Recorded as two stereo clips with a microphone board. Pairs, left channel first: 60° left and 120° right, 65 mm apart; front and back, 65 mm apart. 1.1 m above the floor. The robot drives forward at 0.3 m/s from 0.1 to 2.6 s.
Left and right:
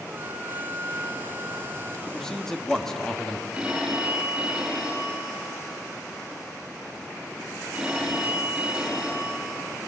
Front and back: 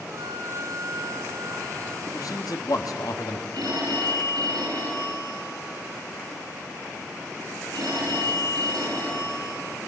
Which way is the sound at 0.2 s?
170° right.